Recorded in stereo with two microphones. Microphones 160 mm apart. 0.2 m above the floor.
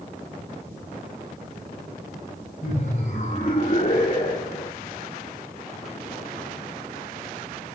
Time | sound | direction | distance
2.6 | laughter | 50° left (ahead or behind) | 7.5 m